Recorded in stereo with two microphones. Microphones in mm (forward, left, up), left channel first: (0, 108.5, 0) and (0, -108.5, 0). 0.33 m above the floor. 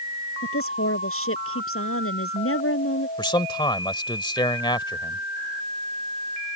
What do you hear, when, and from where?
0.4 s a woman speaking: 80° left
3.2 s a man speaking: 20° left (ahead or behind)